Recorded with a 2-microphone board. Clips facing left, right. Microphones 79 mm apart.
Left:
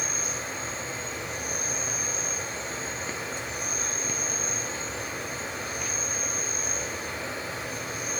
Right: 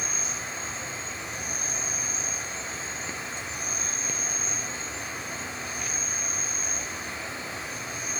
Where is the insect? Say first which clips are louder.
Left 1 dB; 50° left (ahead or behind), 1.6 m.